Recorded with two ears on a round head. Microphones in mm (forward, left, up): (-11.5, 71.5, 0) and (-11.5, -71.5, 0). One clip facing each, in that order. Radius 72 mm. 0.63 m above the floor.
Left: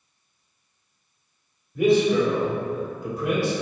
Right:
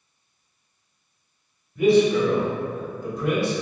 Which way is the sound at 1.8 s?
50° left (ahead or behind).